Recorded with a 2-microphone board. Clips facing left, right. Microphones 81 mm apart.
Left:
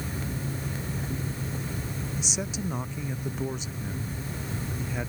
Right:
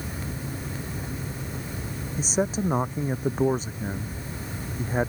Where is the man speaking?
40° right (ahead or behind).